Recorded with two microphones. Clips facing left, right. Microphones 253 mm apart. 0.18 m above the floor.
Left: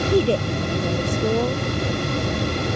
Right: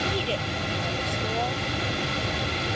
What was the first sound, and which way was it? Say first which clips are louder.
A woman speaking: left 11 dB; 50° left (ahead or behind).